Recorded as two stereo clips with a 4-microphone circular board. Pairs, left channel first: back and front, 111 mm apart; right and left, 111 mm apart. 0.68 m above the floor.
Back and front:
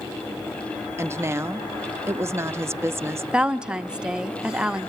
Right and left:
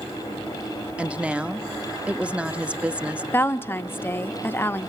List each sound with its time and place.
1.0 s a woman speaking: 25° left, 0.6 m
3.3 s a woman speaking: 65° right, 0.6 m